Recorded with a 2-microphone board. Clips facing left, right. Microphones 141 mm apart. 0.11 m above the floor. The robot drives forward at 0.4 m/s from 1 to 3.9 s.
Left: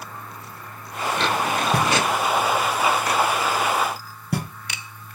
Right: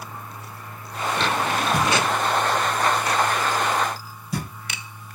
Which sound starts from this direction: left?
Knocking, at 1.7 s.